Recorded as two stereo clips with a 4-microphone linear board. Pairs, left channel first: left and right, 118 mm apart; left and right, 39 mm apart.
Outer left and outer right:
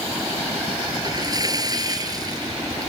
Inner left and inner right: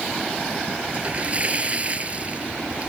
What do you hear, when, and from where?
0.9 s a splash: 35° right (ahead or behind)